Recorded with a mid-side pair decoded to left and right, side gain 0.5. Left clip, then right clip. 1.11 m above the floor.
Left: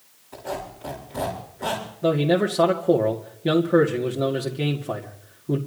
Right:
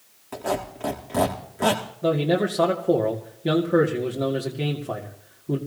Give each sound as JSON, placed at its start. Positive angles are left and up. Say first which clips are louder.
{"t": 0.3, "sound": "a squeak", "louder": "right 5 dB", "azimuth_deg": -65, "distance_m": 5.0}
{"t": 2.0, "sound": "a man speaking", "louder": "left 1 dB", "azimuth_deg": 5, "distance_m": 2.0}